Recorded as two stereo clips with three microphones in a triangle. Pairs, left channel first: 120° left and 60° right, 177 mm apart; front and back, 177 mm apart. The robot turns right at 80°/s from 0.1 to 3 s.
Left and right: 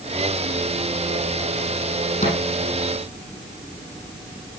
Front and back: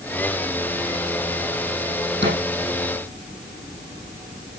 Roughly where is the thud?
Behind.